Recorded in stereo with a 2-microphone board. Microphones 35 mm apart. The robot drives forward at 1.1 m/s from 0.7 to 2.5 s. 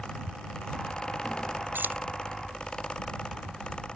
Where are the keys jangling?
85° right.